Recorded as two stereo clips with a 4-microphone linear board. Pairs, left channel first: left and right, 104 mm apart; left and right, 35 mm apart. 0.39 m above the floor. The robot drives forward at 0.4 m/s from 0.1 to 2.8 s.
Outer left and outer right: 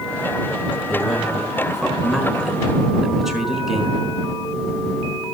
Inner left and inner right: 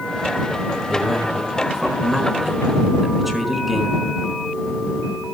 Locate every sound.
0.9 s a man speaking: 5° right (ahead or behind), 5 m